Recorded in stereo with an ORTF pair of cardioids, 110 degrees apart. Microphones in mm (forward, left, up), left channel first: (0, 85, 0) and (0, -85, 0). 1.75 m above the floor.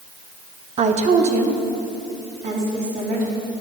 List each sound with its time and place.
0.8 s a woman speaking: 40° right, 1.1 m; by 3.3 s 45° right, 5 m